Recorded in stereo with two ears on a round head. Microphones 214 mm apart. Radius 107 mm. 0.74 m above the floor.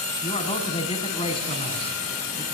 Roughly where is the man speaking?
Left.